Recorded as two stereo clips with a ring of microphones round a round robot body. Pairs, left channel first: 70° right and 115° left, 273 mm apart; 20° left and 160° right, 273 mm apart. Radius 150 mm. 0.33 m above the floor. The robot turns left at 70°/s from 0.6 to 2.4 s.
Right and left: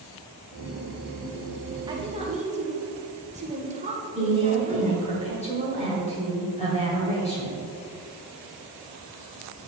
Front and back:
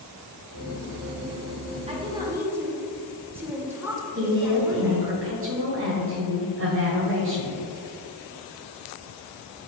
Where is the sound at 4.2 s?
130° right, 1.9 m.